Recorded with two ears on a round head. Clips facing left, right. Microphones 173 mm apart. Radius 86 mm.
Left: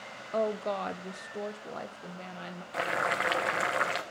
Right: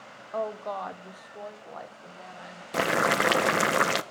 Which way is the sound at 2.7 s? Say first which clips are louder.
Right 7 dB; 60° right (ahead or behind).